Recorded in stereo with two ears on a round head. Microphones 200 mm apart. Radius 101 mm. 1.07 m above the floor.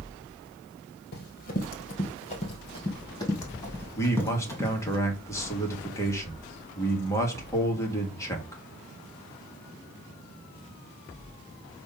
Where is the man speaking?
15° left (ahead or behind), 1.7 m.